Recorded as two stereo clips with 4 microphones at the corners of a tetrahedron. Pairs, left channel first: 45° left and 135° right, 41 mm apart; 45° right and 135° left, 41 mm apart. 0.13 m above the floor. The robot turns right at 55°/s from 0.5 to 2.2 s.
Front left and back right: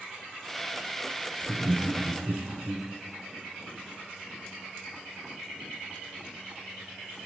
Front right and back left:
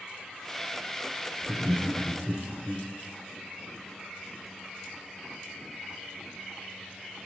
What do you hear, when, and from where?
1.4 s laughter: 175° left, 1.2 m; by 2.9 s 140° right, 1.2 m